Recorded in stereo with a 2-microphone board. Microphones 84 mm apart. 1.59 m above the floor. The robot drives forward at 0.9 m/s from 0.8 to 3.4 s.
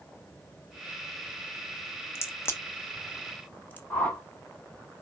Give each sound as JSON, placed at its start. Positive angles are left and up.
{"t": 2.1, "sound": "a crack", "side_deg": 30, "distance_m": 1.1}
{"t": 3.9, "sound": "a whoosh", "side_deg": 15, "distance_m": 1.4}